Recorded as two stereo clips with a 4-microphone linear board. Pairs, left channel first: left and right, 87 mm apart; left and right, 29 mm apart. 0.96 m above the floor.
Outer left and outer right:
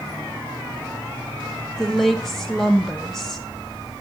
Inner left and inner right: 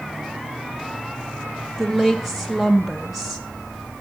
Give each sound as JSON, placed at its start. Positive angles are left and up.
{"t": 1.8, "sound": "a woman speaking", "side_deg": 5, "distance_m": 0.7}